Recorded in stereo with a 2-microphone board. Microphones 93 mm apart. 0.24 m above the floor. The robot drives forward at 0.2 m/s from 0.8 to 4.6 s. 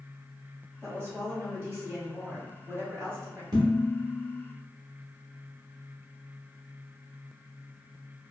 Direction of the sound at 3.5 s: 50° right (ahead or behind).